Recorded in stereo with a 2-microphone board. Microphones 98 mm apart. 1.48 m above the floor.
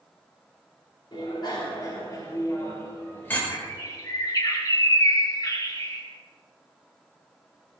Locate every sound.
1.1 s a bicycle bell: 55° left (ahead or behind), 4 m; by 3.4 s 20° left (ahead or behind), 4 m
3.5 s a bird: 40° left (ahead or behind), 2.5 m